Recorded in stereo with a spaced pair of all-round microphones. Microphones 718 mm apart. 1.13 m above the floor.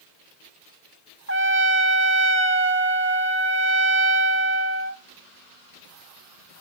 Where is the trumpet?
20° right (ahead or behind), 0.7 m.